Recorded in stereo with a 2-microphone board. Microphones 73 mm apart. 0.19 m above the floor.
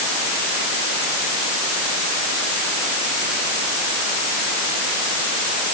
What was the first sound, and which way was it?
Only background noise.